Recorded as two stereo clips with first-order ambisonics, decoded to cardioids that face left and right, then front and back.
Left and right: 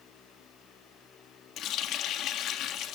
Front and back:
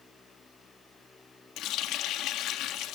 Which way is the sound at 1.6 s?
45° left.